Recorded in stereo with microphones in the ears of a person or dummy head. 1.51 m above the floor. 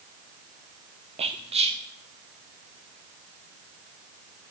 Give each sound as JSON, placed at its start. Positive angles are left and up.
{"t": 1.2, "sound": "whispering", "side_deg": -25, "distance_m": 0.7}